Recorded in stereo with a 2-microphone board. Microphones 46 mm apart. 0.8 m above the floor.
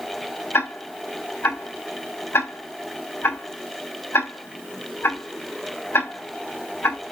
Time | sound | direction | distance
0.5 | ticking | 70° left (ahead or behind) | 3.5 m